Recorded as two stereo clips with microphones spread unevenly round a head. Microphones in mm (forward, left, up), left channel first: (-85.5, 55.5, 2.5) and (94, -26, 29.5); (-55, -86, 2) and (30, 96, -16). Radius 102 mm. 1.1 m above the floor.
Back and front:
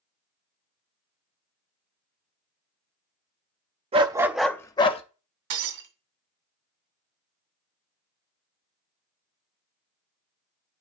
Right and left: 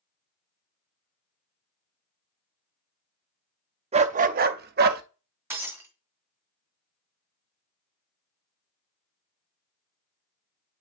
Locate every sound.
3.9 s a dog barking: 10° left, 0.5 m; by 5.0 s 95° left, 0.6 m
5.5 s breaking glass: 15° right, 2 m